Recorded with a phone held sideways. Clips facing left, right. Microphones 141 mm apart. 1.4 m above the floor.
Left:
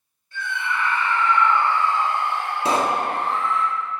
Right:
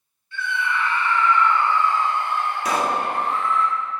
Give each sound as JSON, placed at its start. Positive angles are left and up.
{"t": 0.3, "sound": "a scream", "side_deg": 40, "distance_m": 1.7}
{"t": 2.6, "sound": "a pop", "side_deg": 30, "distance_m": 0.5}